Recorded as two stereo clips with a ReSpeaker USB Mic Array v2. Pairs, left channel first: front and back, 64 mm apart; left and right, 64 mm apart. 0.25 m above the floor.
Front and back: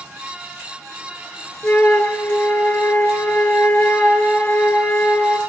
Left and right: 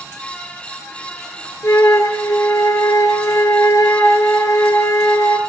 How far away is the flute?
About 2.5 m.